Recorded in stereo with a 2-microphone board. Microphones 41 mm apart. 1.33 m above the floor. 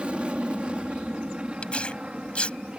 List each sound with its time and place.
0.0 s an aircraft: 25° right (ahead or behind)
1.6 s tearing paper: 25° left (ahead or behind)